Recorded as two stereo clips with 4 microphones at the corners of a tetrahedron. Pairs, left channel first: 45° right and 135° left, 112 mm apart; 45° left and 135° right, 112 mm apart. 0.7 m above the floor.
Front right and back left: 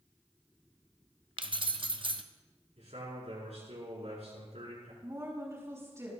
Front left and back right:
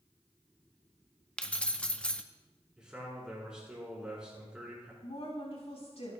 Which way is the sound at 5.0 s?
75° left.